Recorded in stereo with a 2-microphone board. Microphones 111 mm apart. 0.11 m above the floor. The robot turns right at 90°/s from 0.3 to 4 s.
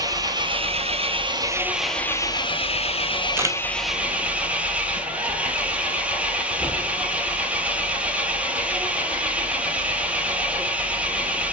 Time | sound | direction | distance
0.0 | an engine running | 140° right | 0.8 m
3.4 | a camera shutter | 20° right (ahead or behind) | 0.7 m